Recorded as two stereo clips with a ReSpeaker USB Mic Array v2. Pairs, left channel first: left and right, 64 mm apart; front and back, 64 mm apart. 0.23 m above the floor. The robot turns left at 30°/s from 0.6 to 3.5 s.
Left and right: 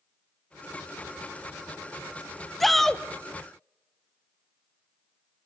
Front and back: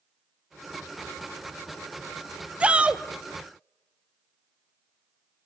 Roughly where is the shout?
Behind.